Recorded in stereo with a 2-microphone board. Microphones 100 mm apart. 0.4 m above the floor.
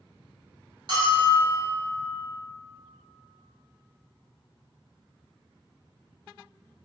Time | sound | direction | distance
0.9 | a bell | 50° right (ahead or behind) | 1.4 m